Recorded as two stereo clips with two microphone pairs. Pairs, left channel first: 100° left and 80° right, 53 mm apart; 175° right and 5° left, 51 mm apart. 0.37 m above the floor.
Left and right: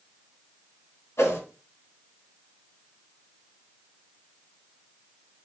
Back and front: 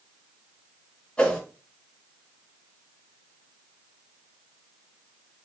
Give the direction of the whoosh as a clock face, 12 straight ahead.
8 o'clock.